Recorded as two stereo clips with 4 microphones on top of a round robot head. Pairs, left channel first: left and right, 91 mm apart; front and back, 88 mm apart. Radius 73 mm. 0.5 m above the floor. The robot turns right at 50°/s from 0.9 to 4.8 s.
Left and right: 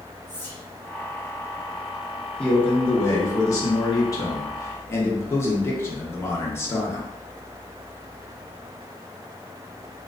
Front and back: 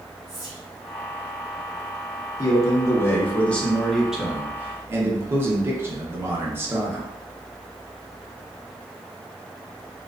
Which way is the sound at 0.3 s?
90° right.